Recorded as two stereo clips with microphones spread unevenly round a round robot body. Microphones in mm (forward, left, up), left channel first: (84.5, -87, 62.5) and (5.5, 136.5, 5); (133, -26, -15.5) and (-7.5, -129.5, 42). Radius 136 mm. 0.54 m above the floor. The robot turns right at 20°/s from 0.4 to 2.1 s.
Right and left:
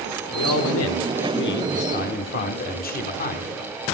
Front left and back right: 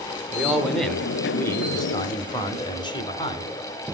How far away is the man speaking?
About 1.4 m.